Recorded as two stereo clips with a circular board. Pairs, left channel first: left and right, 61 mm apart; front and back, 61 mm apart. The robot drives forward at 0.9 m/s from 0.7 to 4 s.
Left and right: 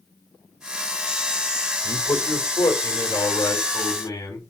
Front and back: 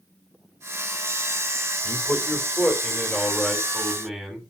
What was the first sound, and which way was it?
A man speaking, 65° left.